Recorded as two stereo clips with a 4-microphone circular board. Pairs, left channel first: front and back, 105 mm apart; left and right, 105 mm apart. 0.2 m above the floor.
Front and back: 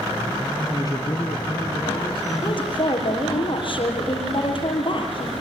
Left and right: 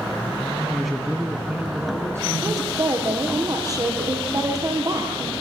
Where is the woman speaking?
35° right, 6 m.